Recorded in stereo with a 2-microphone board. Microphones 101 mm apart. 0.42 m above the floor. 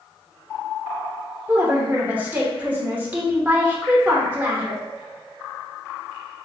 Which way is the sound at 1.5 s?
15° right (ahead or behind).